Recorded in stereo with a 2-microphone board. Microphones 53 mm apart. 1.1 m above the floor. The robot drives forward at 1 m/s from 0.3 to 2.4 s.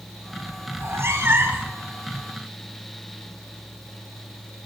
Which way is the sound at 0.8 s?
60° right (ahead or behind).